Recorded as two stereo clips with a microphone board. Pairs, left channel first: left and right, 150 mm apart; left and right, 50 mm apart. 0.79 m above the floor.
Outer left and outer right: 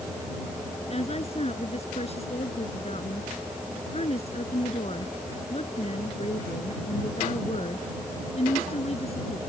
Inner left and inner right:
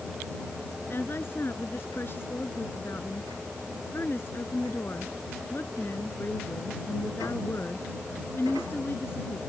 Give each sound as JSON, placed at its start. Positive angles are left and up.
{"t": 0.9, "sound": "a woman speaking", "side_deg": 45}